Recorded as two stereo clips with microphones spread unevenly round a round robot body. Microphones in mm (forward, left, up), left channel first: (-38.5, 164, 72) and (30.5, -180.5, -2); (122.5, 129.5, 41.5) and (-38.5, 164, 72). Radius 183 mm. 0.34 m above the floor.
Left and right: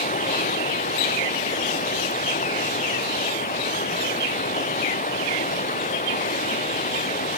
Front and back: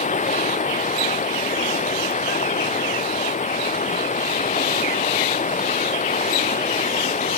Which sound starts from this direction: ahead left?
Running water, at 0.0 s.